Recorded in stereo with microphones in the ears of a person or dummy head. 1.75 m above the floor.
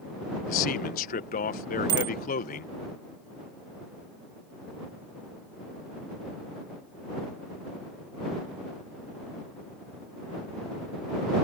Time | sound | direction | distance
0.5 | a man speaking | 50° left (ahead or behind) | ?
1.9 | a bicycle bell | 30° right (ahead or behind) | ?